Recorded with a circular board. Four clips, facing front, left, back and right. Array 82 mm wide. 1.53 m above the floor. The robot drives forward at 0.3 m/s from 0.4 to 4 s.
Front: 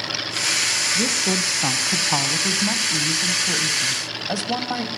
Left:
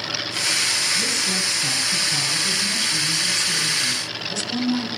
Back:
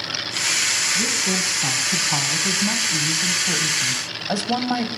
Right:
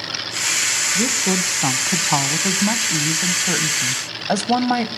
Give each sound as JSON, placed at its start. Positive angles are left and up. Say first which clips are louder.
{"t": 0.9, "sound": "a woman speaking", "louder": "right 6 dB, front 3 dB", "azimuth_deg": -55, "distance_m": 1.6}